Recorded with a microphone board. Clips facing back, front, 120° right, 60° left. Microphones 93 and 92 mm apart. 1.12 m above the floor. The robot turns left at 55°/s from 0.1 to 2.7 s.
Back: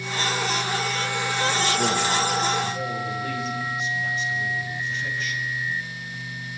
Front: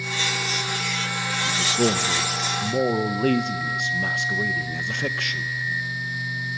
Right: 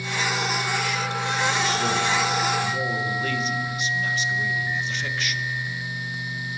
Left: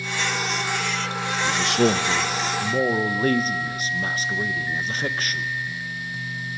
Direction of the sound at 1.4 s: 85° left.